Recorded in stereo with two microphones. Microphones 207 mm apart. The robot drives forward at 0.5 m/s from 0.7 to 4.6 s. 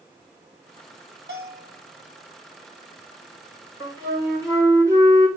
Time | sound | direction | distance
1.3 | a bell | 55° right (ahead or behind) | 3 m
3.8 | a flute | 15° right (ahead or behind) | 3.5 m